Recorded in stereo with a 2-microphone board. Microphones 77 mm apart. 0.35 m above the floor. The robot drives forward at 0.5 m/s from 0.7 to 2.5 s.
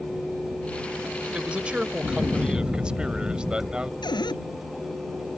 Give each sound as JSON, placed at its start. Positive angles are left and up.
{"t": 1.3, "sound": "a man speaking", "side_deg": -15}
{"t": 4.0, "sound": "a cupboard door", "side_deg": 75}